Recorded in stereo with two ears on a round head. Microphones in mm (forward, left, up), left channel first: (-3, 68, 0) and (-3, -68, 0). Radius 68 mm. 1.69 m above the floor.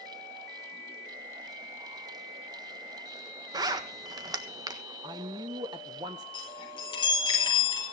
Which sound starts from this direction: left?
A chime, at 6.3 s.